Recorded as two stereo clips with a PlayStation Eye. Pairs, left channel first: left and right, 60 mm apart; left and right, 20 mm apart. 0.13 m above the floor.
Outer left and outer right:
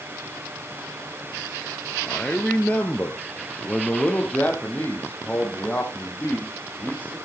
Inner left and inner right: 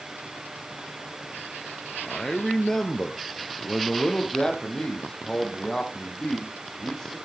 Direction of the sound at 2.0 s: 20° left (ahead or behind).